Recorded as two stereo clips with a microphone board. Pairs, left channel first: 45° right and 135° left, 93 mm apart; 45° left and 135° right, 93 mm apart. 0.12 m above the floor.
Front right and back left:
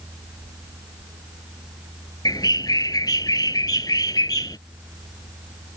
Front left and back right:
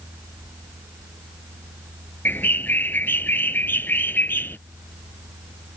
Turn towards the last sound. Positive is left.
turn(degrees=-20)